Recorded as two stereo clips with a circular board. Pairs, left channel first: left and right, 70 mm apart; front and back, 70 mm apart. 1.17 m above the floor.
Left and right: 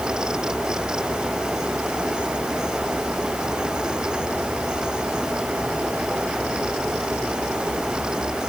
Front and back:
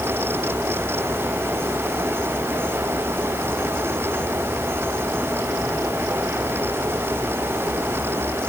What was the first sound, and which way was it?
Only background noise.